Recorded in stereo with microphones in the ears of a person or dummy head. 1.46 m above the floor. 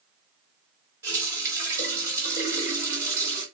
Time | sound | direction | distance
1.0 | a running tap | 15° right (ahead or behind) | 1.5 m